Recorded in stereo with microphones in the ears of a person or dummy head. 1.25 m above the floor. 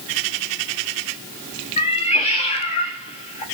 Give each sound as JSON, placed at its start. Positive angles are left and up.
{"t": 1.8, "sound": "a cat meowing", "side_deg": 40, "distance_m": 0.6}